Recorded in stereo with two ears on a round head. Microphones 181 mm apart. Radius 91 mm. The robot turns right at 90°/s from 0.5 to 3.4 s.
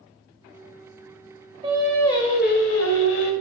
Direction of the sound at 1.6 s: 20° right.